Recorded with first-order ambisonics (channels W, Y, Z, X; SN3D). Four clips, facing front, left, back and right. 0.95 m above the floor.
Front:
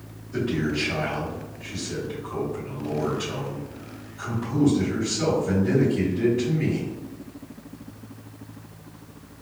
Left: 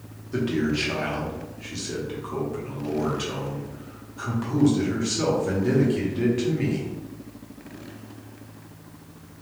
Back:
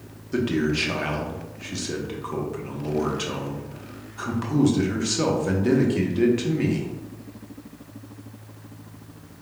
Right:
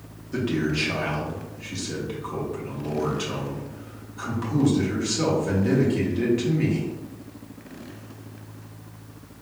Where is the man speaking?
Straight behind, 0.9 m.